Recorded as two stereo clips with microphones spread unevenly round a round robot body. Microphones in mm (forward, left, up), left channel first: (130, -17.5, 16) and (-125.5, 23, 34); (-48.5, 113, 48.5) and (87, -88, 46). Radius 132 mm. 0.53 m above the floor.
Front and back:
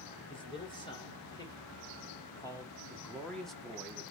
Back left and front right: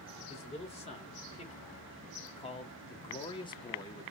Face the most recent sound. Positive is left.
turn(degrees=90)